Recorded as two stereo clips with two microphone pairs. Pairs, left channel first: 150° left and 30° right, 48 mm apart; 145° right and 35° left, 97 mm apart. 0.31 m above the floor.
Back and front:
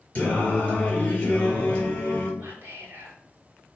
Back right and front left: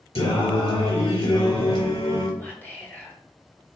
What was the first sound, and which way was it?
Singing, 145° right.